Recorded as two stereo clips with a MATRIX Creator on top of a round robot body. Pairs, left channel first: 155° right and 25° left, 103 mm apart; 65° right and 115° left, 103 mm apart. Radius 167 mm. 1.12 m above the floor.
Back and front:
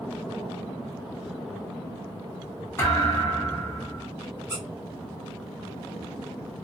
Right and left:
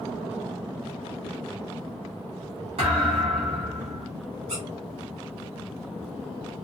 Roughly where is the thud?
Behind left.